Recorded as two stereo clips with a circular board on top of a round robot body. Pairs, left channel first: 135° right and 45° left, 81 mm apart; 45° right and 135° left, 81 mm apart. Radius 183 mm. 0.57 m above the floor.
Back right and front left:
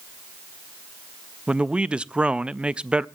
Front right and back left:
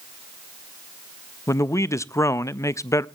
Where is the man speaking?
25° right, 0.7 m.